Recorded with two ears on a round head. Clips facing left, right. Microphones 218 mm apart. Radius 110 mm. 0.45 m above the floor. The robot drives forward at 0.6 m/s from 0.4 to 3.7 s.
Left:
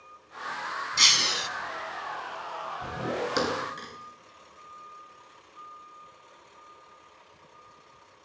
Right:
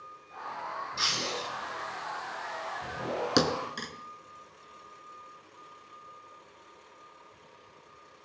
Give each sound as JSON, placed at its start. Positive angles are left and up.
{"t": 1.0, "sound": "breaking glass", "side_deg": 45, "distance_m": 1.0}
{"t": 3.4, "sound": "a thud", "side_deg": -45, "distance_m": 2.0}